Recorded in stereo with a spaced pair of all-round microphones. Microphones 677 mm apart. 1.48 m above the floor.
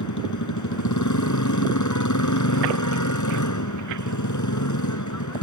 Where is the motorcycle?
25° left (ahead or behind).